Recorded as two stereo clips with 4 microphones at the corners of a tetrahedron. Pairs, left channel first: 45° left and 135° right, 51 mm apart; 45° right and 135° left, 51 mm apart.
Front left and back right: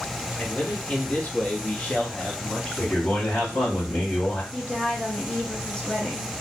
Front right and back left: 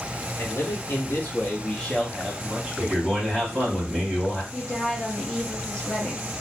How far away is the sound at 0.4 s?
About 1.2 m.